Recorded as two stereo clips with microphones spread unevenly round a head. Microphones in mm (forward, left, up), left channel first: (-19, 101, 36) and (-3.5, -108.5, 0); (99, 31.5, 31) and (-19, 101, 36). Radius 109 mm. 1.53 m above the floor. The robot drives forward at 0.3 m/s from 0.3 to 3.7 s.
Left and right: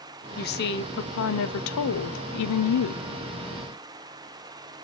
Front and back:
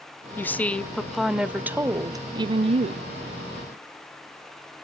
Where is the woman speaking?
45° left, 0.9 m; by 3.1 s 105° left, 0.7 m.